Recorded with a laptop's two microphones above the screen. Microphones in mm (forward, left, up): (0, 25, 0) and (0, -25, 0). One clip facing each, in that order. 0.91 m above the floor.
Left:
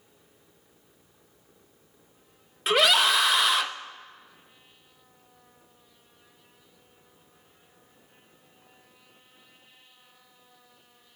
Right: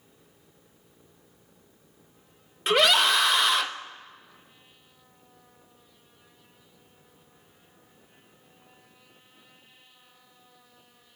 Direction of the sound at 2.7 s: 5° left (ahead or behind).